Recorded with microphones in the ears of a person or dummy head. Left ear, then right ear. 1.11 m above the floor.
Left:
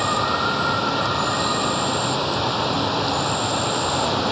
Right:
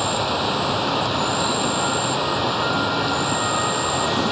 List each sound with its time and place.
0.0 s an insect: centre (ahead or behind)